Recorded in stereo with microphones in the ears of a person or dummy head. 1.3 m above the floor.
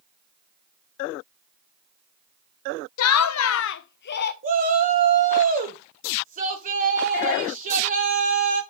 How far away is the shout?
About 1.3 m.